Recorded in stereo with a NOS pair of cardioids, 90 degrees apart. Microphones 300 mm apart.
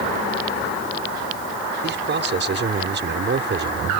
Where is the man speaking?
40° right.